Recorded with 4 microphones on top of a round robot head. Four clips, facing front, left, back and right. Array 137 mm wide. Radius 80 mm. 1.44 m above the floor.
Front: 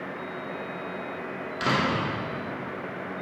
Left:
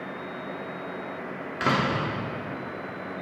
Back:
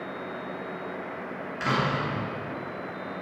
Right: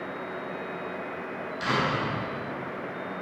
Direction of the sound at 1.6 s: 70° left.